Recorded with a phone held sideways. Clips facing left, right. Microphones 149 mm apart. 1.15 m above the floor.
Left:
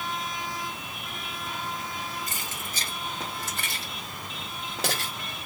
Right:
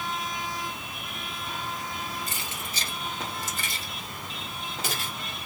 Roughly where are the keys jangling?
Left.